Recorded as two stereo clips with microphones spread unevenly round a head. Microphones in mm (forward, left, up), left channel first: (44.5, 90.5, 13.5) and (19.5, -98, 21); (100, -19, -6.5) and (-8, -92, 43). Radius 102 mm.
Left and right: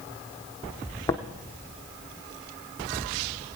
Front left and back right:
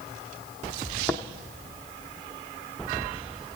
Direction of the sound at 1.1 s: 150° left.